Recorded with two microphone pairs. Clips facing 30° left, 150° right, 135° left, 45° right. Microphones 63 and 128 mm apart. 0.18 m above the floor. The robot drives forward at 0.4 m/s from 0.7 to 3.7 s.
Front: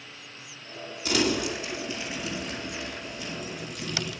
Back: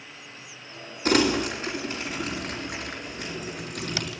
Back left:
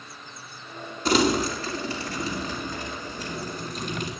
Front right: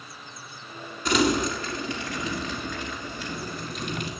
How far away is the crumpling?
About 1.8 m.